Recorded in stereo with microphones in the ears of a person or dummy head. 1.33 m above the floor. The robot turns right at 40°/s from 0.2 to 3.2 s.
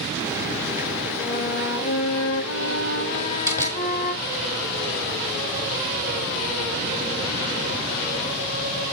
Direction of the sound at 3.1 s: 10° left (ahead or behind).